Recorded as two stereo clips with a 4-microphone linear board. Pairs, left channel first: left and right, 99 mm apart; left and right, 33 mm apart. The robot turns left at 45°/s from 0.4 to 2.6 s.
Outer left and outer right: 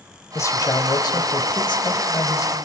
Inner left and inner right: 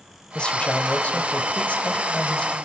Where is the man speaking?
140° left, 1.6 m; by 2.5 s 40° left, 1.6 m.